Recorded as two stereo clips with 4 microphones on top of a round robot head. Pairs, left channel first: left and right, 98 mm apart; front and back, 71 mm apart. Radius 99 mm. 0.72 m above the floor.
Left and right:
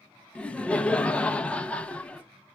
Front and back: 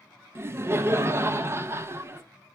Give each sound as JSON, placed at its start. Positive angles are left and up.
{"t": 0.3, "sound": "laughter", "azimuth_deg": 160, "distance_m": 0.5}